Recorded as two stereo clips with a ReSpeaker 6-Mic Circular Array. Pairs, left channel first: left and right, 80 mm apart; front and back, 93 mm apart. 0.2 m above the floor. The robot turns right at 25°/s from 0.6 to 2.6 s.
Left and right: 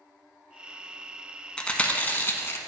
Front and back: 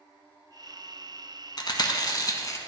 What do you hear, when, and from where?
1.6 s chewing: 15° left, 0.7 m; by 2.6 s 40° left, 0.7 m